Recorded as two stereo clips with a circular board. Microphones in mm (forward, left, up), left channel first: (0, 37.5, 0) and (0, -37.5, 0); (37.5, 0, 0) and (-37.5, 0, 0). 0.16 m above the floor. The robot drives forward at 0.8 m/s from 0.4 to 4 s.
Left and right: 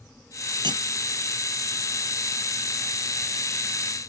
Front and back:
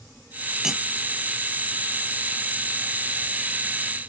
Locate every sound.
0.6 s cutlery clinking: 95° right; by 0.8 s 100° right